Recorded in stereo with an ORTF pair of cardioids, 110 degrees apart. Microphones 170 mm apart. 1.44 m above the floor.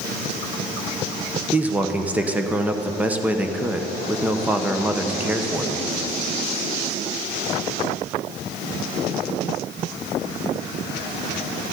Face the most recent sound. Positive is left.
turn(degrees=-5)